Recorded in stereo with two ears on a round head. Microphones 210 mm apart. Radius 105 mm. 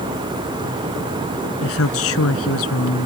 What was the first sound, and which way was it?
A woman speaking, 65° left (ahead or behind).